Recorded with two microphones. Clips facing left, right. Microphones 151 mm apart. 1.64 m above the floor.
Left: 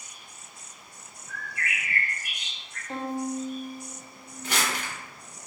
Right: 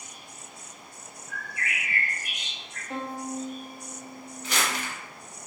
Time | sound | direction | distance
1.3 | a bird | 55° left (ahead or behind) | 1.7 m
2.9 | a violin | 25° left (ahead or behind) | 0.8 m
4.4 | crumpling | 50° left (ahead or behind) | 0.9 m